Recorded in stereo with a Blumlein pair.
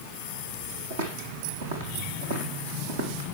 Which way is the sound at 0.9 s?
60° right.